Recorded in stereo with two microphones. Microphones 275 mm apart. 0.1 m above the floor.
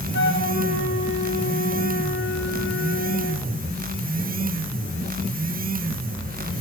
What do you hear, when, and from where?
0.1 s a flute: 45° left (ahead or behind), 8.5 m